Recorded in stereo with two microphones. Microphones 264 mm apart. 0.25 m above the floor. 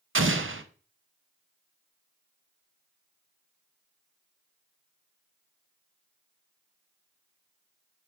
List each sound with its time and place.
0.1 s an explosion: 50° right (ahead or behind), 0.5 m